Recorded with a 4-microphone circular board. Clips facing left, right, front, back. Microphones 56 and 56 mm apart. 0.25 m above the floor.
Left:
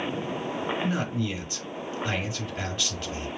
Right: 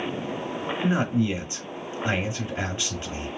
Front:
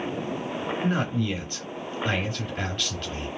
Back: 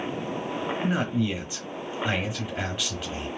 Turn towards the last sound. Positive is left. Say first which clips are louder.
# right 5 dB, even
turn(degrees=-110)